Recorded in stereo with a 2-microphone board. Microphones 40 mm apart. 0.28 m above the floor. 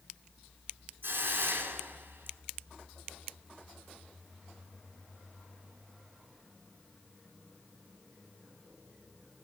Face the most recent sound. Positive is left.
turn(degrees=-60)  # may be behind; listen again after turning